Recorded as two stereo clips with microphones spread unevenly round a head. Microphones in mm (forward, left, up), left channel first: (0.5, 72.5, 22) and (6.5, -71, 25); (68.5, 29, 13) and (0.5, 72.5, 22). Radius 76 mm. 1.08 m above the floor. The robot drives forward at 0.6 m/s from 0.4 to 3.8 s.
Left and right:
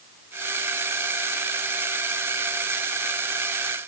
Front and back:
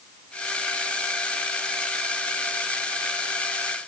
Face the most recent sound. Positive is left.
No sound to turn to.